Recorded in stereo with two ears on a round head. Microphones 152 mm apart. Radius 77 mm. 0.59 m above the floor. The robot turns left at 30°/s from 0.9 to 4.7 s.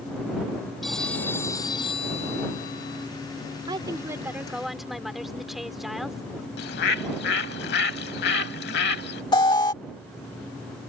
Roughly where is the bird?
Left.